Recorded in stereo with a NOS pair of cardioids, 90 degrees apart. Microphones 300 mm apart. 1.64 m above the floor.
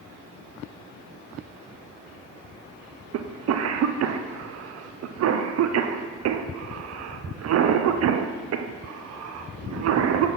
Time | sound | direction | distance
3.1 | a cough | 55° right | 0.6 m